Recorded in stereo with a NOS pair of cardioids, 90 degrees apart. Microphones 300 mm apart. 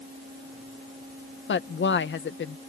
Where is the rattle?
I don't hear a rattle.